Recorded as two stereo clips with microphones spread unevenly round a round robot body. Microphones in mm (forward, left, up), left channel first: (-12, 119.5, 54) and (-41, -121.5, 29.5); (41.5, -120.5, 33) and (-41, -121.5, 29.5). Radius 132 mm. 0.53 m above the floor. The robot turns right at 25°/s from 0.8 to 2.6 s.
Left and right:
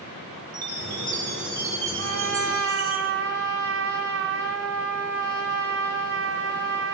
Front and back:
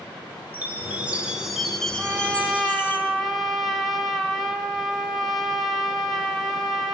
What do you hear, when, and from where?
0.5 s a chime: 110° right, 6 m; by 3.0 s 65° right, 6 m
2.0 s a trumpet: 105° right, 3.5 m; by 6.9 s 90° right, 3.5 m